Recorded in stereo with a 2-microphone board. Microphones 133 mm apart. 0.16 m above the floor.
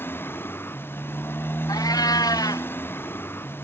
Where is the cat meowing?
25° left (ahead or behind).